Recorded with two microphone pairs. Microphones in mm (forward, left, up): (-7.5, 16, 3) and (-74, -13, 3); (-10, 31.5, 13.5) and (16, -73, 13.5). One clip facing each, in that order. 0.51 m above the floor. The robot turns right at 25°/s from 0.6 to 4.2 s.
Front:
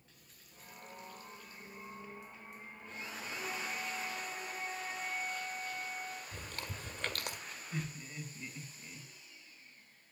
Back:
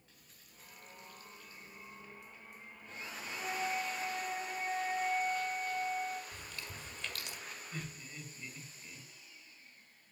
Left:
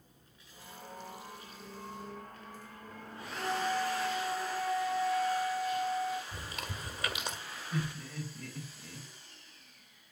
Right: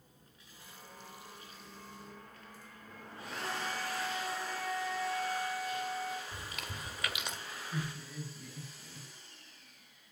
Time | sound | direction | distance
3.4 | a flute | 145° left | 6.5 m
6.3 | chewing | 50° left | 1.8 m
7.7 | laughter | 105° left | 4.5 m